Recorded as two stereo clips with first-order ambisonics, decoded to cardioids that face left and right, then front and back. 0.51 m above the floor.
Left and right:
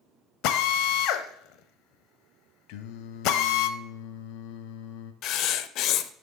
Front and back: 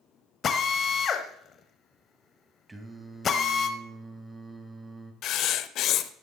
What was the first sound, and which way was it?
A drill, 65° left.